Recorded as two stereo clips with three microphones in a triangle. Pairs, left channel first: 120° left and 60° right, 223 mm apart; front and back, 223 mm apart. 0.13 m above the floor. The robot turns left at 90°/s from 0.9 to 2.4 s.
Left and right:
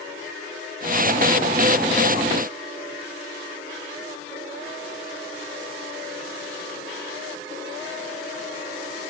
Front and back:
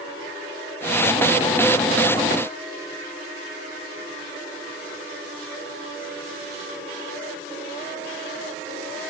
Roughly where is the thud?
No thud in this recording.